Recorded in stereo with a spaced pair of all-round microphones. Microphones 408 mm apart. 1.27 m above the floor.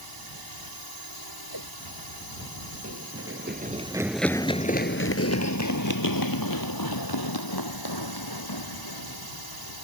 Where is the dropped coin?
I don't hear a dropped coin.